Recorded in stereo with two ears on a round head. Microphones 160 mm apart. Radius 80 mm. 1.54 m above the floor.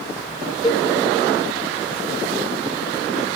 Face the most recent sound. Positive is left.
turn(degrees=20)  # may be behind; listen again after turning